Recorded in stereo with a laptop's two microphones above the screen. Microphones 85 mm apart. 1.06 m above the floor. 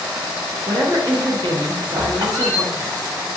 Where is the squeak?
45° right (ahead or behind), 1.7 m.